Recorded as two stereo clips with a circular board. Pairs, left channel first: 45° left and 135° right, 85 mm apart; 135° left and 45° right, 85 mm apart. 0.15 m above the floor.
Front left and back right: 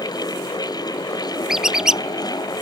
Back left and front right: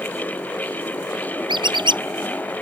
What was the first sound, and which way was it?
A squeak, 50° right.